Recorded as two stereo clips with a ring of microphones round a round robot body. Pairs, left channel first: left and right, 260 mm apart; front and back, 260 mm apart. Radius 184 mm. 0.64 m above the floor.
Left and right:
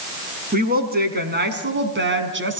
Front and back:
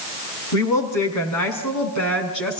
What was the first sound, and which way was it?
A woman speaking, 35° right.